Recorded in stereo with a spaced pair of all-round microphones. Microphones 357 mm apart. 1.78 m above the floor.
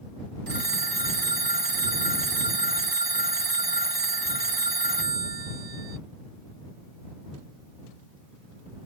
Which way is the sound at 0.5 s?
80° right.